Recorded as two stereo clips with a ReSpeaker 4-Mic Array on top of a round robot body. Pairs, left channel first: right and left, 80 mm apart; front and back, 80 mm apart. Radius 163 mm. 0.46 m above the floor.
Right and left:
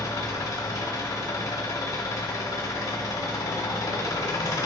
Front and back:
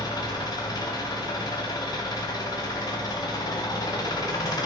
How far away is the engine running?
About 0.8 m.